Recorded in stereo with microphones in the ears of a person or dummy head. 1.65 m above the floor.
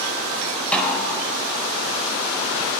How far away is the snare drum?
About 4.5 m.